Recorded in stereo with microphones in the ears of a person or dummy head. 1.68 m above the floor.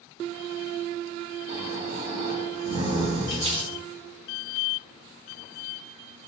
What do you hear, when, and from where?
1.5 s snoring: 40° right (ahead or behind), 0.6 m
3.3 s crumpling: 30° right (ahead or behind), 1.7 m